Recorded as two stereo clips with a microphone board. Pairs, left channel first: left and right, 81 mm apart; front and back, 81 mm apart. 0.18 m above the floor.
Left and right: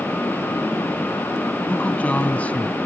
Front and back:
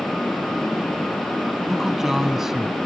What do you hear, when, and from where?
1.7 s a man speaking: 110° left, 1.1 m